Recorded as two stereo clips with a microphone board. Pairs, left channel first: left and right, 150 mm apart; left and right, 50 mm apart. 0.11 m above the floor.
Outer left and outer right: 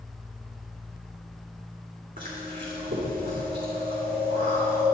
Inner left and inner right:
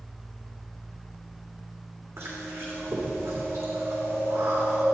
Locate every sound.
2.2 s chewing: 60° right (ahead or behind), 3.5 m